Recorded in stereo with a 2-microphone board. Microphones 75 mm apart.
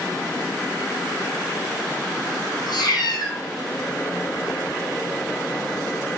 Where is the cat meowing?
70° left (ahead or behind), 0.8 m.